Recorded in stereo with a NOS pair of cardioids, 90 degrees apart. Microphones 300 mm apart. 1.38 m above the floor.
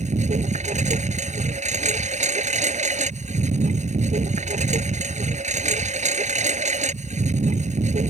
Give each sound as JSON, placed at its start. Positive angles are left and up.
{"t": 0.0, "sound": "a lawn mower", "azimuth_deg": -25}